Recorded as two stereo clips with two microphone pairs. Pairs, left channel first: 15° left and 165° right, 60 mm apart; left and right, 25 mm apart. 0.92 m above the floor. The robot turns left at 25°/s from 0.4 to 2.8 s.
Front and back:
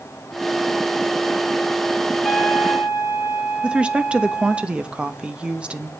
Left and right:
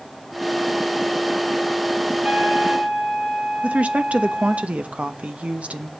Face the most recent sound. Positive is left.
turn(degrees=-95)